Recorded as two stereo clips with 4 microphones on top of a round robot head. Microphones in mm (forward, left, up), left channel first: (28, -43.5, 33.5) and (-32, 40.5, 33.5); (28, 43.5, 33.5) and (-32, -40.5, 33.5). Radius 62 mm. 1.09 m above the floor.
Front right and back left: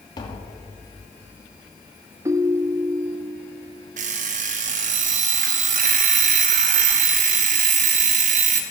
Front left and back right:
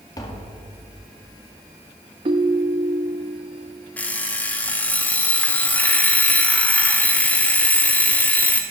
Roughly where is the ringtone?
Behind.